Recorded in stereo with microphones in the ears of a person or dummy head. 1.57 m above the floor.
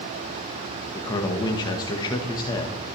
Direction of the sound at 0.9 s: 15° left (ahead or behind).